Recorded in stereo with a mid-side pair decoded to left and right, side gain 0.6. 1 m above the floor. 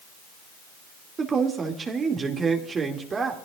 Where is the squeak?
No squeak in this recording.